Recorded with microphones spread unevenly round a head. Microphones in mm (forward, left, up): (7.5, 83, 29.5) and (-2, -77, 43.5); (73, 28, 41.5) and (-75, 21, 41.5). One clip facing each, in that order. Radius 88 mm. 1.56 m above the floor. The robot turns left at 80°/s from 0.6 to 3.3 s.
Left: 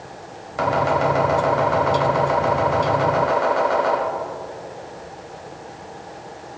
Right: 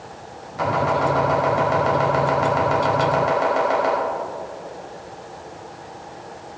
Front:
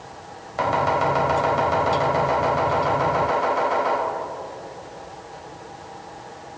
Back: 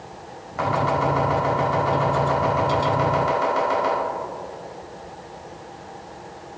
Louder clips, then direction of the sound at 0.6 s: Left 1 dB, front 1 dB; 60° left.